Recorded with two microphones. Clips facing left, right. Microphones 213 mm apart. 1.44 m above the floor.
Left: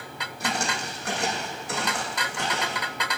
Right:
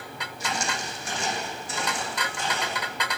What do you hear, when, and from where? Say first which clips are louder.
0.4 s footsteps: left 2 dB; 60° left (ahead or behind), 3 m; by 2.9 s 70° left (ahead or behind), 4 m